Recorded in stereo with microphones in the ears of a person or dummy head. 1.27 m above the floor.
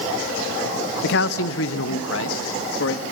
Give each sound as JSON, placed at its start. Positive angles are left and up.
{"t": 1.0, "sound": "a man speaking", "side_deg": 70, "distance_m": 0.6}